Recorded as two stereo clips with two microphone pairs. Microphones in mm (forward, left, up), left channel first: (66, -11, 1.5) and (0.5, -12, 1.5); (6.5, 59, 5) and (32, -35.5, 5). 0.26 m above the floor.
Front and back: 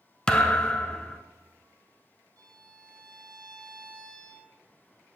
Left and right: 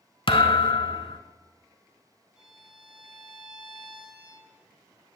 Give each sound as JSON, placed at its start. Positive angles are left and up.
{"t": 0.3, "sound": "a thud", "azimuth_deg": 75, "distance_m": 0.8}
{"t": 2.4, "sound": "a violin", "azimuth_deg": -160, "distance_m": 1.3}